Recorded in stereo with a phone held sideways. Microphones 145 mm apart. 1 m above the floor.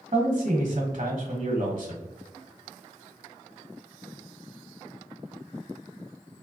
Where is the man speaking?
60° right (ahead or behind), 1.1 m.